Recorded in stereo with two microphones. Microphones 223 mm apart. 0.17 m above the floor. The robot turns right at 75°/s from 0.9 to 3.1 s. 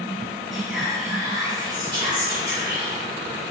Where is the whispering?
5° right (ahead or behind), 1.0 m.